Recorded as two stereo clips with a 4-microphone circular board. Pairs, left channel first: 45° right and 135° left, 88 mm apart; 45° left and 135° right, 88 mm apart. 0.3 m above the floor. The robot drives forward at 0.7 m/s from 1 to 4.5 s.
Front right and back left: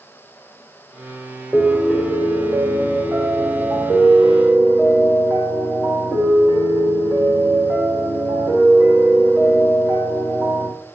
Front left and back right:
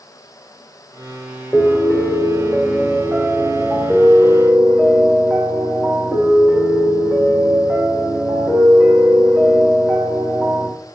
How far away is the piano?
About 1.4 m.